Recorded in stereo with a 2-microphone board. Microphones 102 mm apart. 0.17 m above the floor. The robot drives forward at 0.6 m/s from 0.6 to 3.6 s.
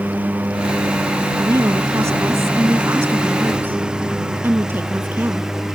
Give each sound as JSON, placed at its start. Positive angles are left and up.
{"t": 0.0, "sound": "a lawn mower", "side_deg": -15}
{"t": 1.4, "sound": "a woman speaking", "side_deg": -30}